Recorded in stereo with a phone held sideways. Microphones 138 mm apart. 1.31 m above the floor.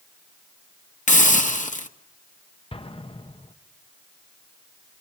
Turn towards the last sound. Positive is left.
turn(degrees=40)  # may be behind; listen again after turning